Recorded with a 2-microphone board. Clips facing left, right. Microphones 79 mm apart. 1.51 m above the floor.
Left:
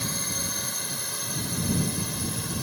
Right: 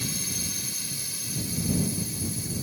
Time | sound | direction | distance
0.0 | a drone | 45° left (ahead or behind) | ?